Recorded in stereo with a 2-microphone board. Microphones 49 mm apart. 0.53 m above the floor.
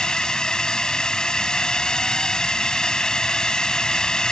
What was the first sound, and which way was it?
A drone, 15° left (ahead or behind).